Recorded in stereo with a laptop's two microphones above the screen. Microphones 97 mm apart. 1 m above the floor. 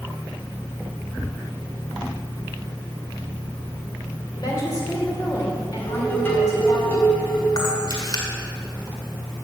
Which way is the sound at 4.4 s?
40° left (ahead or behind).